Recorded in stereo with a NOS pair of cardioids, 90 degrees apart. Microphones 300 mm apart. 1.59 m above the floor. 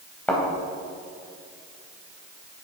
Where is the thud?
5° left, 3.5 m.